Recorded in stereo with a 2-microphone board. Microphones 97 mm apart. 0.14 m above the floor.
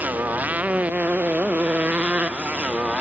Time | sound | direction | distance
0.0 | a motorcycle | 15° right (ahead or behind) | ?